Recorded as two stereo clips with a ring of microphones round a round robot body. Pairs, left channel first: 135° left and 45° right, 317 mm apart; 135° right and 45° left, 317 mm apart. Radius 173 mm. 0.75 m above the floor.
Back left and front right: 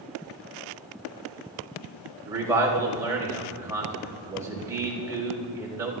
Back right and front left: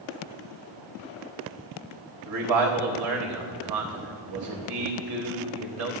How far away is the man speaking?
About 4 m.